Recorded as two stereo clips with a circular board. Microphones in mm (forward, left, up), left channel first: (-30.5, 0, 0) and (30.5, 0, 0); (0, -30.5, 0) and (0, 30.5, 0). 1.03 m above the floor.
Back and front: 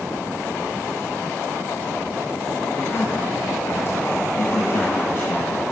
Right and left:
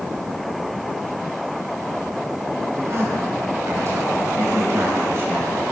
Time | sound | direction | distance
2.7 | a man speaking | 130° left | 5 m